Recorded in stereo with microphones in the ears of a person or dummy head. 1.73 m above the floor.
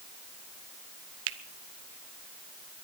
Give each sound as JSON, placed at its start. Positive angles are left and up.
{"t": 1.3, "sound": "a finger snap", "side_deg": -70, "distance_m": 0.8}